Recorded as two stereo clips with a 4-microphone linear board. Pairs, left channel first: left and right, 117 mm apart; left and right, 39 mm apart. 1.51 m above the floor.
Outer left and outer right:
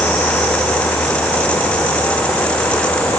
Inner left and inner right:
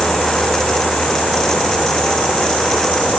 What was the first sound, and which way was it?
Only background noise.